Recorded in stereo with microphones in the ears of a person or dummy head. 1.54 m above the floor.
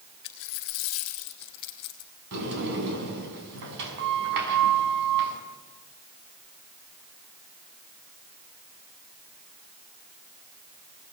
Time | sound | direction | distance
0.2 | a dropped coin | 20° left (ahead or behind) | 1.1 m
2.3 | a sliding door | 60° right (ahead or behind) | 6 m